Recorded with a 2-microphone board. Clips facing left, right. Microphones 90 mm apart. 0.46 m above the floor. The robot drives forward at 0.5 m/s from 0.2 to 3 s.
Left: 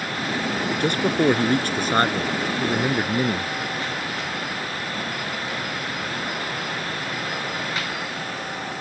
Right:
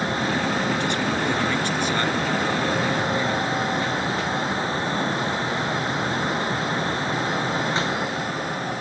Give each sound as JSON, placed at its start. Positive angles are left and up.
{"t": 0.8, "sound": "a man speaking", "side_deg": 55}